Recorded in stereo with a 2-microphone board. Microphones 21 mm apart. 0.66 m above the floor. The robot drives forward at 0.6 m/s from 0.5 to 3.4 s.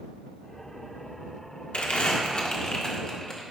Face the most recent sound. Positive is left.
turn(degrees=30)  # may be behind; listen again after turning